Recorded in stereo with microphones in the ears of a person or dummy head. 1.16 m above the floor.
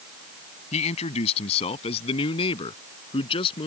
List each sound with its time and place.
0.7 s a man speaking: 35° left (ahead or behind); by 3.7 s 25° left (ahead or behind)